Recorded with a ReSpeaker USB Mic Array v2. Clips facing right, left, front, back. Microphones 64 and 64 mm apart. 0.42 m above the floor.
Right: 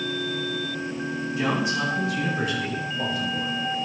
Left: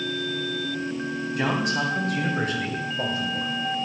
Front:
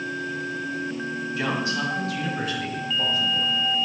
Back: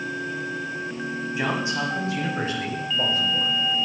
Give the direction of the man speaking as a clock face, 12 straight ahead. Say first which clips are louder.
Even, back 1 dB; 8 o'clock.